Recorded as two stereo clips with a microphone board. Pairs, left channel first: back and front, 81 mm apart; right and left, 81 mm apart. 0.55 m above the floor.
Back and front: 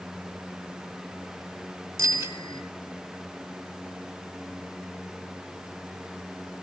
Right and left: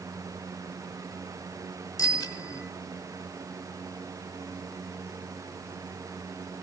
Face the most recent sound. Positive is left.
turn(degrees=-55)